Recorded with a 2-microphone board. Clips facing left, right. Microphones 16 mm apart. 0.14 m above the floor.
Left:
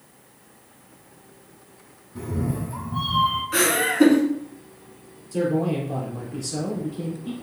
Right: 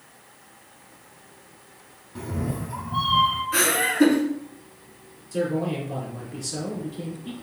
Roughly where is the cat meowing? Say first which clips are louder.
Left 2 dB; right.